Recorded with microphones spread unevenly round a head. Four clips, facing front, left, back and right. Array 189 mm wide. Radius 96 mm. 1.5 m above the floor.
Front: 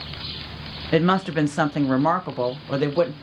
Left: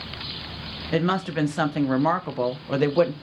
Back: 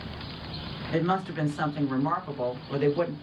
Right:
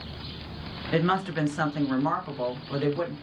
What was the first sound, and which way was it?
A woman speaking, 5° left.